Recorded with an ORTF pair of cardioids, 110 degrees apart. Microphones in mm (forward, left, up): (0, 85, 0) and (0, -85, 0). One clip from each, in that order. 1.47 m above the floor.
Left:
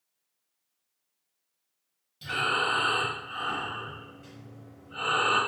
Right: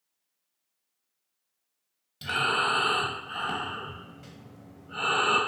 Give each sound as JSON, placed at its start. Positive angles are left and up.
{"t": 2.2, "sound": "breathing", "azimuth_deg": -40, "distance_m": 0.7}